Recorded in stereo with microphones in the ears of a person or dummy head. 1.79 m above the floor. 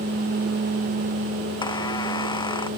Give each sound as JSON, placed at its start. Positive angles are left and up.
{"t": 1.6, "sound": "a squeak", "side_deg": 15}